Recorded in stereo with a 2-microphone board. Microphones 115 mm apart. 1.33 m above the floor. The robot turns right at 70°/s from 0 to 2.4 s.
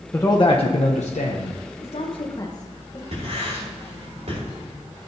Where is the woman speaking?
75° left (ahead or behind), 1.1 m; by 3.0 s 35° left (ahead or behind), 1.1 m.